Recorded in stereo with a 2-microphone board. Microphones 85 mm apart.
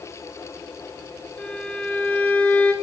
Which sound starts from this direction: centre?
A violin, at 1.4 s.